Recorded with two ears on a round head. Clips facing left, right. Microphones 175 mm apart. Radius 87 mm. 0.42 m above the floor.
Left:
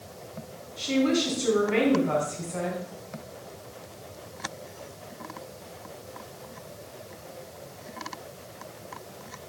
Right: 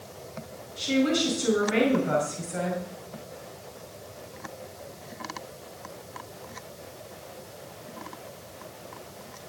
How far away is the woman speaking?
About 5 m.